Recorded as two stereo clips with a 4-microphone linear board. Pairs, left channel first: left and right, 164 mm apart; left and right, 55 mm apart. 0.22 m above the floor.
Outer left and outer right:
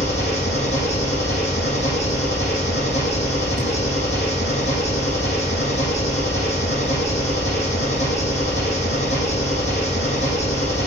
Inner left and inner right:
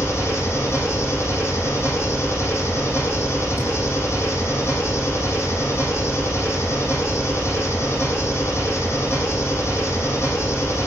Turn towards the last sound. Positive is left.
turn(degrees=40)  # may be behind; listen again after turning